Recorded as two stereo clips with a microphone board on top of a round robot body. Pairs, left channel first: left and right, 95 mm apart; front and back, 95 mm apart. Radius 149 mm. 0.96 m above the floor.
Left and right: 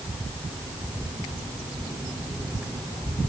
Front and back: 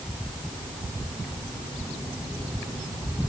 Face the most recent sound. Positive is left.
No sound to turn to.